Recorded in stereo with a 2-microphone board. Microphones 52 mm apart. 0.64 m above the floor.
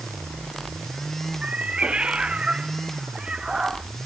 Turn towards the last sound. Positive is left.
turn(degrees=-15)  # may be behind; listen again after turning